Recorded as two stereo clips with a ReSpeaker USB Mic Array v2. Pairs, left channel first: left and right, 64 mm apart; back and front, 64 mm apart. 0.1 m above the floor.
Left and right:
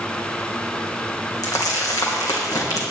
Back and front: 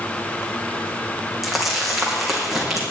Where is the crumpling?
90° left, 3 m.